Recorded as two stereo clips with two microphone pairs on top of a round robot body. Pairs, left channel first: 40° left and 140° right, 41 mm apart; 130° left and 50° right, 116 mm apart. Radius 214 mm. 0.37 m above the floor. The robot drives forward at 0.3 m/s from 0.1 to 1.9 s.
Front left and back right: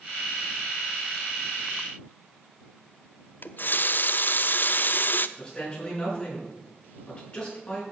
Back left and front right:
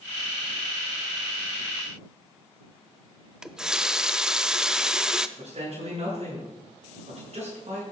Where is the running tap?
30° left, 0.7 m.